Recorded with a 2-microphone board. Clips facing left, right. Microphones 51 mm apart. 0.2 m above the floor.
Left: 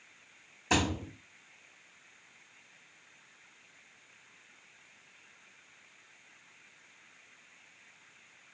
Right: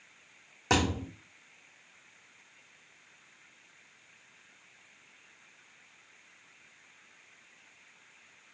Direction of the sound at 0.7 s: 65° right (ahead or behind).